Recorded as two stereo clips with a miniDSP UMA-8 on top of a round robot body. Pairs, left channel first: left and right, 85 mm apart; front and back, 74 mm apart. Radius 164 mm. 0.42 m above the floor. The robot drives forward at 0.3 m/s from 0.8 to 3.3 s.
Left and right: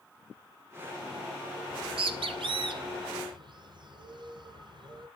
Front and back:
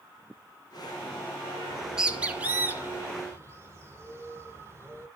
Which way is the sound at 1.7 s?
95° right.